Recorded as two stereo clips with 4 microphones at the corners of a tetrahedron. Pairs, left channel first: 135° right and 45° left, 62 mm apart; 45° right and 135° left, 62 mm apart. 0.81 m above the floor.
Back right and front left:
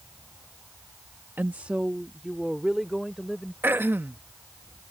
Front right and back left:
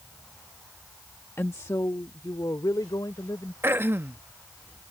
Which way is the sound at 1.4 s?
5° right.